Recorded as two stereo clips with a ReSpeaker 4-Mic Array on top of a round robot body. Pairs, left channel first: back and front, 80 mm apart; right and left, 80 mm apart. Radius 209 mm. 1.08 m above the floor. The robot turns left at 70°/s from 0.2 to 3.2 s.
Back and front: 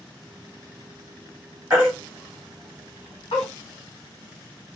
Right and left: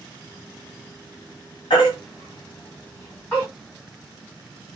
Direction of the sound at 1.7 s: 65° right.